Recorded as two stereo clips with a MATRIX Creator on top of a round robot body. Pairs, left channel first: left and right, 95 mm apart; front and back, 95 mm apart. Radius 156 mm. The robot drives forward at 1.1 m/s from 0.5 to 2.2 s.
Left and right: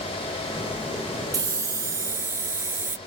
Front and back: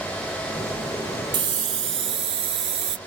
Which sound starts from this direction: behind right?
A hiss, at 1.3 s.